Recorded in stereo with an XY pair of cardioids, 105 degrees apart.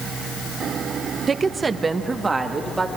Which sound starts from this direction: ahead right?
A woman speaking, at 1.3 s.